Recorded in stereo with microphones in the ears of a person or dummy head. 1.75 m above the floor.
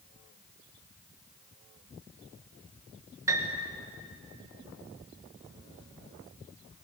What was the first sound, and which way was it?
A piano, 15° right (ahead or behind).